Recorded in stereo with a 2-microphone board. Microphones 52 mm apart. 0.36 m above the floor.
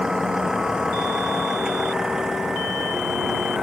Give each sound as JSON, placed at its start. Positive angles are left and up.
{"t": 0.0, "sound": "a vehicle", "side_deg": -10}